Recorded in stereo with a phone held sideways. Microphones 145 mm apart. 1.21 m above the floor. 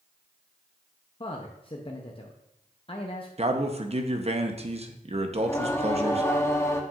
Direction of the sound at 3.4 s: 45° right (ahead or behind).